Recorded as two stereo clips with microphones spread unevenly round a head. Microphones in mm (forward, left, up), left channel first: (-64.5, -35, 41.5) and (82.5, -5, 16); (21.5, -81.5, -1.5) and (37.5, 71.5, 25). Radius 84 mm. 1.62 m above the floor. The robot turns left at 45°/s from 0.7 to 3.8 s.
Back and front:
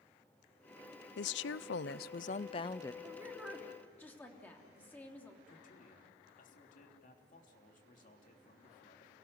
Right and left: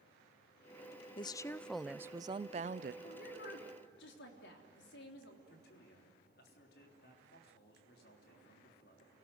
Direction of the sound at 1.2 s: 160° right.